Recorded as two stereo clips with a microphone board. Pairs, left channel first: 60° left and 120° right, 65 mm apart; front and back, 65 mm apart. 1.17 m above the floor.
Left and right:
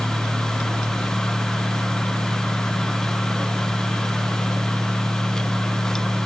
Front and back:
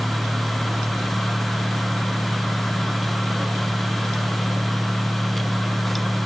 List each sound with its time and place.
Only background noise.